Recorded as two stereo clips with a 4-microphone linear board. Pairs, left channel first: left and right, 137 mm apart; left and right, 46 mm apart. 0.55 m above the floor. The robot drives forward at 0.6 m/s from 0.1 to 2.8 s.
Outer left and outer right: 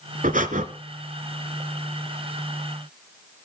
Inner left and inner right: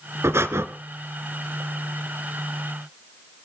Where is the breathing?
75° right (ahead or behind), 1.4 m; by 0.7 s 70° right (ahead or behind), 1.4 m.